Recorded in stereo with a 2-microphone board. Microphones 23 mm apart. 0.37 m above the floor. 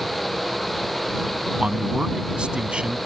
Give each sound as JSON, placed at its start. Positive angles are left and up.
{"t": 1.6, "sound": "a man speaking", "side_deg": -45}